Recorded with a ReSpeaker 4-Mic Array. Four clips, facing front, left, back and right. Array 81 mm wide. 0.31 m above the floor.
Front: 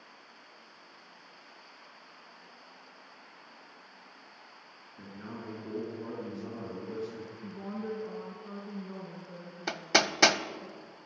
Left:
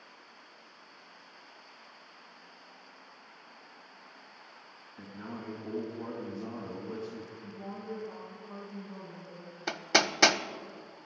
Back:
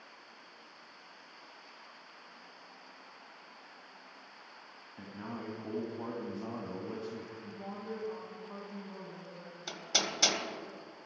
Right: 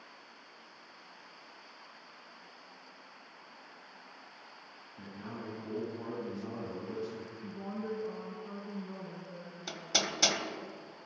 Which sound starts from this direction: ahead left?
Hammering, at 9.7 s.